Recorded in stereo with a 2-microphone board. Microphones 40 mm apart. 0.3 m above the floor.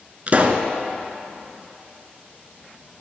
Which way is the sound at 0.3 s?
35° right (ahead or behind).